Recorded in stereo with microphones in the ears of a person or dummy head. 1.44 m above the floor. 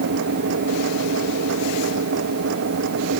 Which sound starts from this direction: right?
A machine running, at 0.0 s.